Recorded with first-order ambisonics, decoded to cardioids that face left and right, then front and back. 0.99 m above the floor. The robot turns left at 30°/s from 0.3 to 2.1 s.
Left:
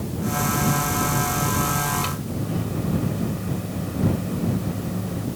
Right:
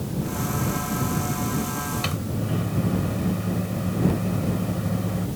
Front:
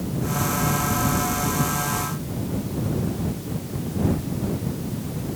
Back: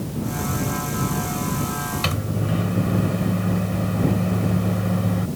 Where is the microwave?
165° right.